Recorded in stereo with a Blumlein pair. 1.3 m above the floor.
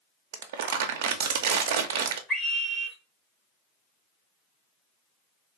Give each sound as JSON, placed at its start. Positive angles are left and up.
{"t": 0.3, "sound": "crumpling", "azimuth_deg": -55, "distance_m": 0.6}
{"t": 2.3, "sound": "a scream", "azimuth_deg": 5, "distance_m": 0.7}